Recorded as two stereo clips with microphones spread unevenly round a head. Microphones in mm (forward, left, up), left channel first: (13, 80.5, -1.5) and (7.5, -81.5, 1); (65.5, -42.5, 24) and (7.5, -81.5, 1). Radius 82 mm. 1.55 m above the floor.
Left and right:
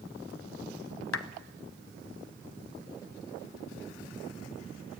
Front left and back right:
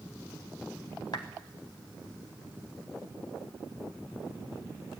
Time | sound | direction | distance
1.1 | a clap | 100° left | 1.1 m